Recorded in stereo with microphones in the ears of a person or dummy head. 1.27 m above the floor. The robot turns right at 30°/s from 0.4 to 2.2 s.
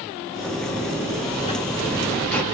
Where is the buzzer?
130° left, 2 m; by 2.4 s 175° left, 2 m.